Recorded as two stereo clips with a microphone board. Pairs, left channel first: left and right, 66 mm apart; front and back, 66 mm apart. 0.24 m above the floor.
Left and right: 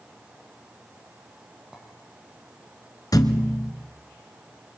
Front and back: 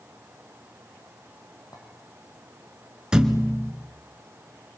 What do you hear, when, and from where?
1.7 s a clink: 5° right, 5.5 m
3.1 s a thud: 105° left, 1.6 m